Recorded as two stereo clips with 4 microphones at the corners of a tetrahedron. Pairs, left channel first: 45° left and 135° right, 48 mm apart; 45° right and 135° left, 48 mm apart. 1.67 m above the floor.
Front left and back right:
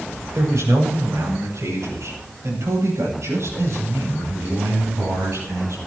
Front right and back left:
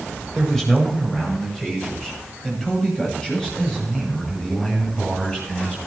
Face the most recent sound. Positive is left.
turn(degrees=-120)